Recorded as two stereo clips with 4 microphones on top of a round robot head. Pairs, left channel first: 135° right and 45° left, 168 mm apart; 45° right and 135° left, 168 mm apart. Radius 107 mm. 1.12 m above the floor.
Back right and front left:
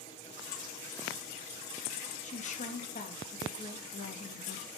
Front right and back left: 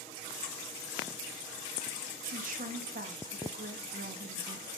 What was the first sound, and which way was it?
A woman speaking, 175° left.